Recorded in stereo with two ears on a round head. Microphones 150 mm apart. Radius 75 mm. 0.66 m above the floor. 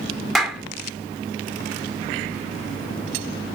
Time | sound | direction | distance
0.3 | a clap | centre (ahead or behind) | 1.7 m